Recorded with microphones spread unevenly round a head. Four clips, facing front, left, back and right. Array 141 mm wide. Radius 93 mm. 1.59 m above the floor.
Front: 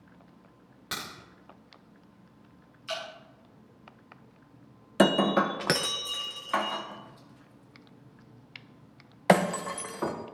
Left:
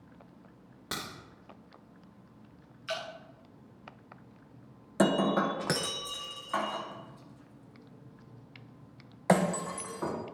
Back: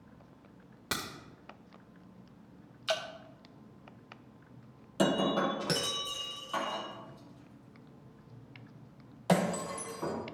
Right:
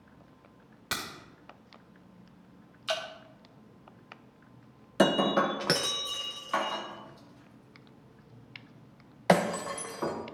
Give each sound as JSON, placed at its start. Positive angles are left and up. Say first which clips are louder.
{"t": 0.9, "sound": "a crack", "louder": "right 2 dB, back 1 dB", "azimuth_deg": 160, "distance_m": 2.0}
{"t": 2.9, "sound": "dripping", "louder": "right 3 dB, back 3 dB", "azimuth_deg": -175, "distance_m": 0.8}
{"t": 5.0, "sound": "breaking glass", "louder": "right 2 dB, front 6 dB", "azimuth_deg": -20, "distance_m": 0.7}